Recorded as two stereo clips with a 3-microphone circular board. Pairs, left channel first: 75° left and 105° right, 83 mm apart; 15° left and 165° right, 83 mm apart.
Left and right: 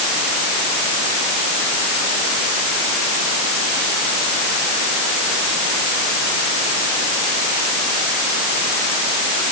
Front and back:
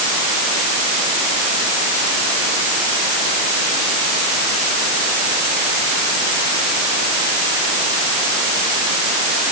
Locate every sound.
Only background noise.